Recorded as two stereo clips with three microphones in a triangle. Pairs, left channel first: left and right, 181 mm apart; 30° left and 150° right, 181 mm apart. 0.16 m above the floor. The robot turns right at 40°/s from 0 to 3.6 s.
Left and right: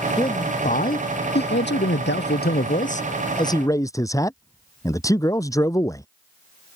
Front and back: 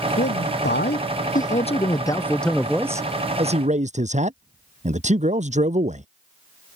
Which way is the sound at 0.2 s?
25° left.